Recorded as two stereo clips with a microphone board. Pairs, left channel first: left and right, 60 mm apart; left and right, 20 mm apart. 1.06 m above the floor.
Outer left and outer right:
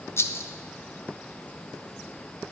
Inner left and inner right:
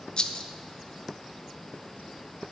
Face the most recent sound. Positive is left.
turn(degrees=45)  # may be behind; listen again after turning